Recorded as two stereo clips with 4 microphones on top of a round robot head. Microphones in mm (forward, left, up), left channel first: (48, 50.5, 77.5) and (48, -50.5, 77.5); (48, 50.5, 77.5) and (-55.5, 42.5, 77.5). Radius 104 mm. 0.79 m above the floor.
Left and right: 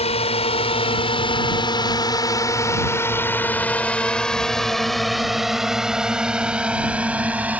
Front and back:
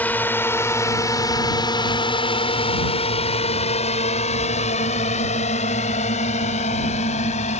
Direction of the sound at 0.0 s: 80° left.